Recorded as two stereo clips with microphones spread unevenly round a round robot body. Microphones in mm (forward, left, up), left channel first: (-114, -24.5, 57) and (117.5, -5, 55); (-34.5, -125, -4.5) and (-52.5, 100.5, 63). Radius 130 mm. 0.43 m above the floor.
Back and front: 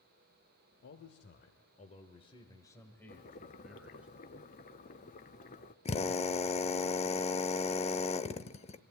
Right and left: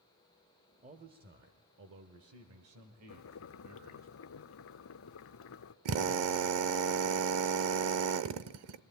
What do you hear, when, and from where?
0.8 s a man speaking: 160° left, 1.5 m; by 4.1 s 90° left, 2 m
3.1 s boiling: 120° right, 0.7 m
5.8 s a drill: 120° left, 0.7 m